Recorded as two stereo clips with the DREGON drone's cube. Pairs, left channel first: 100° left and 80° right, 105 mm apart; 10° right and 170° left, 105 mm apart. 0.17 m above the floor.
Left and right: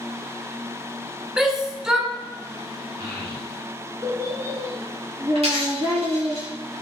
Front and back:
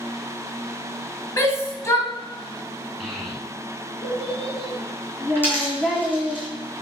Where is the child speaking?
100° right, 0.8 m.